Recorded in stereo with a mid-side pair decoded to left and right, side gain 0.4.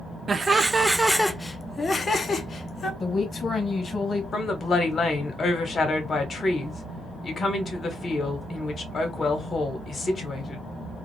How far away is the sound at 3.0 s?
About 1.3 m.